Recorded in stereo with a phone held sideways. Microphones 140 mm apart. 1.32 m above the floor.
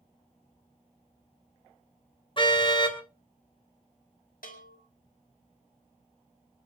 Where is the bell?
85° left, 4 m.